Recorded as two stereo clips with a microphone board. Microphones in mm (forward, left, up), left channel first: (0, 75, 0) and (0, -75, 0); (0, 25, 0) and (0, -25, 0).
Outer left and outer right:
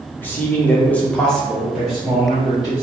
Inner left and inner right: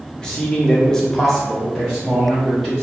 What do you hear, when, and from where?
0.2 s a man speaking: 10° left (ahead or behind), 0.8 m; by 2.8 s 5° right (ahead or behind), 1.2 m